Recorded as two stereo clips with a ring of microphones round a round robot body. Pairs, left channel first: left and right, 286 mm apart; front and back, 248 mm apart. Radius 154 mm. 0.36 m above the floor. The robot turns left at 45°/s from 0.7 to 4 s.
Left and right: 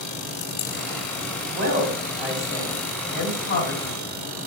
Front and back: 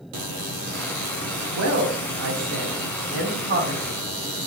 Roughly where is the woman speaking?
Behind right.